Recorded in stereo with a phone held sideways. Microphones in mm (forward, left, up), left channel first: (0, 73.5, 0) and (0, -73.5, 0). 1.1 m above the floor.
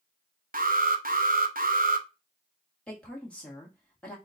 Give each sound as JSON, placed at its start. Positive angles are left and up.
{"t": 0.5, "sound": "an alarm", "side_deg": -80, "distance_m": 0.6}
{"t": 2.9, "sound": "a woman speaking", "side_deg": 10, "distance_m": 1.3}